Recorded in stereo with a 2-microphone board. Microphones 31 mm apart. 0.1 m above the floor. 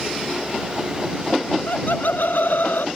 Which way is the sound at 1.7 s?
75° left (ahead or behind).